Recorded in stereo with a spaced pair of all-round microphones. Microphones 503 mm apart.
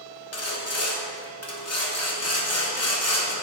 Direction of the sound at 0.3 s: 30° left (ahead or behind).